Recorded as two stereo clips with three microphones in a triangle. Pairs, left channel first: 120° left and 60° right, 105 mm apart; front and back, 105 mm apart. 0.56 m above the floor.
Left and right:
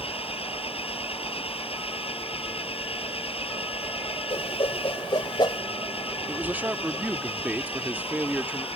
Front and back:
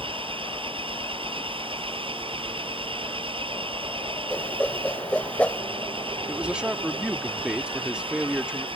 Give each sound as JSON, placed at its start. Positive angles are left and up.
{"t": 0.0, "sound": "an engine running", "azimuth_deg": 145}
{"t": 4.3, "sound": "a whoosh", "azimuth_deg": 80}
{"t": 6.3, "sound": "a man speaking", "azimuth_deg": -115}